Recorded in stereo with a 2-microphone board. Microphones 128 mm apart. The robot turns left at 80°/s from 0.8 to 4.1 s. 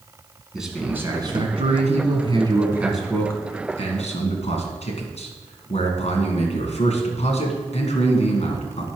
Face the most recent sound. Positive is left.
turn(degrees=90)